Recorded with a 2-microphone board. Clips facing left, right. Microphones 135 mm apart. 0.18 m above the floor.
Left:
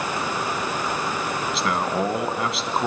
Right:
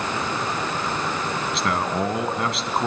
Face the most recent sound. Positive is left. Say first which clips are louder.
# even
turn(degrees=0)  # may be behind; listen again after turning